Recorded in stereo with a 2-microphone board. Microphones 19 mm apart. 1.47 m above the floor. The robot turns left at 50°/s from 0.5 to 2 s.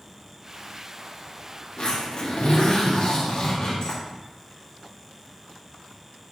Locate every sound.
1.8 s a zipper: 85° left, 2.5 m; by 4.0 s 75° left (ahead or behind), 2.5 m